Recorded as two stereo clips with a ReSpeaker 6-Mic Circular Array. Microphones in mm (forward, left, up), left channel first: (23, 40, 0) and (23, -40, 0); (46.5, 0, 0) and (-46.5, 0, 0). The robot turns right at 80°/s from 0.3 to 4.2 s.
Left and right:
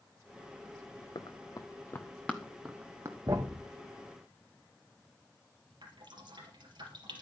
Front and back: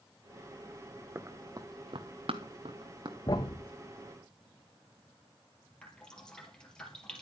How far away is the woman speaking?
No woman speaking in this recording.